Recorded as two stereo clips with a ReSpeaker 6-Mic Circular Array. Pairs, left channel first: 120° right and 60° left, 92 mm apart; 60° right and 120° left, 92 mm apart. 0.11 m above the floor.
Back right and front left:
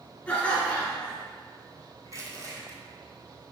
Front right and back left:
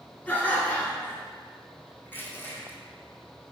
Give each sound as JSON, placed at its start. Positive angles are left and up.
{"t": 0.3, "sound": "laughter", "azimuth_deg": -75, "distance_m": 1.5}
{"t": 2.0, "sound": "crushing", "azimuth_deg": 5, "distance_m": 1.4}